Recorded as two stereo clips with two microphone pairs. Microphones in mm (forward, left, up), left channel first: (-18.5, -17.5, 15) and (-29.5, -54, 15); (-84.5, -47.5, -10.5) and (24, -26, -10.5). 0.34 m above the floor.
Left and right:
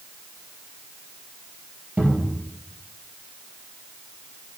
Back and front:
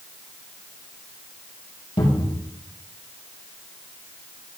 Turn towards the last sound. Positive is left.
turn(degrees=-145)